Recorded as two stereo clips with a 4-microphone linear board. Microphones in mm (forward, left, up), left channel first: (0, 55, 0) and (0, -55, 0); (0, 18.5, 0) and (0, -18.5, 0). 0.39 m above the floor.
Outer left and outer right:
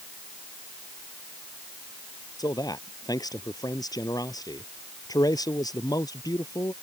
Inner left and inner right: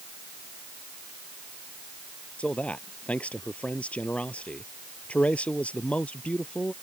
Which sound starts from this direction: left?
A man speaking, at 2.4 s.